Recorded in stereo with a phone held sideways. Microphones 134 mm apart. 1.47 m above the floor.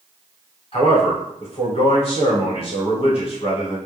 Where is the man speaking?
45° left (ahead or behind), 1.0 m.